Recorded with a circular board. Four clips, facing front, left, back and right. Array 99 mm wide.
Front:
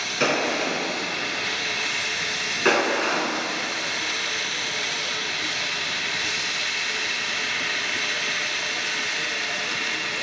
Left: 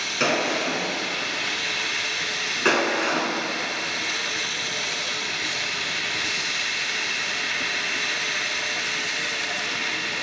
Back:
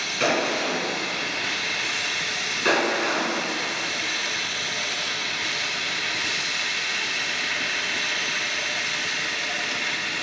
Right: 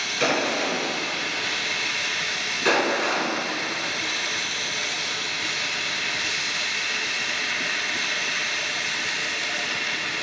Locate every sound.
0.2 s a gunshot: 65° left, 1.8 m